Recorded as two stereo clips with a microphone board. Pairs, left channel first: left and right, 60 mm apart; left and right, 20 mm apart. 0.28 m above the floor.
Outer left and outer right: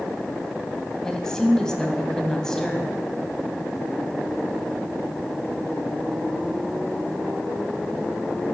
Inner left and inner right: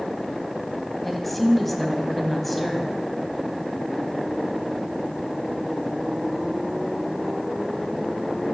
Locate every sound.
1.0 s a woman speaking: 10° left (ahead or behind), 1.4 m